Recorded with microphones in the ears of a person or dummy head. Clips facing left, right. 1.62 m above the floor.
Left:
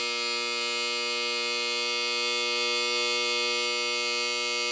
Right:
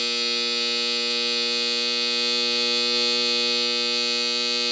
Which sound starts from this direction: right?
A machine running, at 0.0 s.